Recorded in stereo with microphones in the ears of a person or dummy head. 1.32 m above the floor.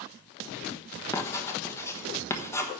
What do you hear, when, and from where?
1.1 s writing: 15° left (ahead or behind), 1.2 m